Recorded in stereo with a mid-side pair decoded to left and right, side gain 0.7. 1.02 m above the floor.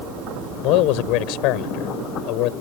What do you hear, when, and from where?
0.6 s a man speaking: 65° left